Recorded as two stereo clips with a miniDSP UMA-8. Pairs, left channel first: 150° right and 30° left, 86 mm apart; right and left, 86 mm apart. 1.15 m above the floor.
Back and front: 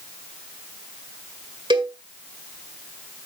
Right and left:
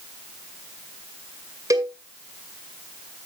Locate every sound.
1.7 s a cowbell: 45° left, 1.9 m